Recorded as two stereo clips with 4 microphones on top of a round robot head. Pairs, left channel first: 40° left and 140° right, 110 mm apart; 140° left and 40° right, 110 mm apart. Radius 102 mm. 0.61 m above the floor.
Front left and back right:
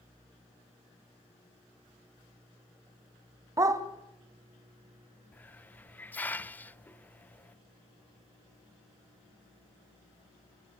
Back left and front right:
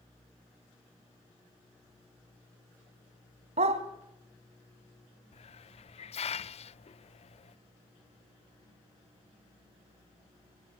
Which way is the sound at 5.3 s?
115° left.